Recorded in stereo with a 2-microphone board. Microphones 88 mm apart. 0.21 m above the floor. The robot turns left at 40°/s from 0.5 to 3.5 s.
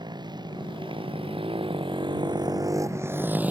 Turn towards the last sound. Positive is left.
turn(degrees=-20)  # may be behind; listen again after turning